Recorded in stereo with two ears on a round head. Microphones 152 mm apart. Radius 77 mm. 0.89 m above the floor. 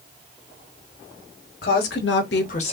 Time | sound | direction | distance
1.6 | a woman speaking | 60° left (ahead or behind) | 1.5 m